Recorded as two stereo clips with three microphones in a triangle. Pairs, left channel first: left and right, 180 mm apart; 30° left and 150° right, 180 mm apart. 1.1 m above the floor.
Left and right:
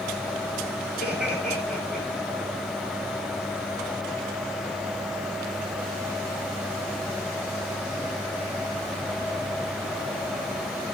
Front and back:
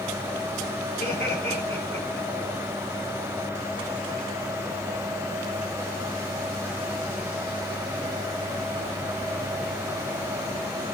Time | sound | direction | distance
1.0 | laughter | 5° right | 9.5 m